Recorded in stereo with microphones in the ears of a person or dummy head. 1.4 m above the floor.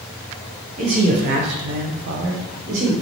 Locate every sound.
0.8 s a man speaking: 40° right (ahead or behind), 0.7 m; by 2.9 s 35° right (ahead or behind), 0.8 m